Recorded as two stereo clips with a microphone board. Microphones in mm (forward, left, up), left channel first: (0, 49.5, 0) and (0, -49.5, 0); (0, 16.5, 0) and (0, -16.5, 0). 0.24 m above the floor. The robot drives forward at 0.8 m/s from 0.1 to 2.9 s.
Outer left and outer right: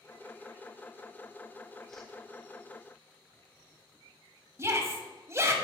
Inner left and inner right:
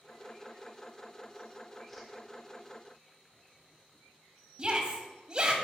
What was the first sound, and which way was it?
A whoosh, centre (ahead or behind).